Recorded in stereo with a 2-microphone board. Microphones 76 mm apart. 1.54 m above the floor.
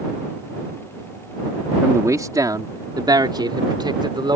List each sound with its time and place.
1.8 s a man speaking: 40° right (ahead or behind); by 4.3 s 80° right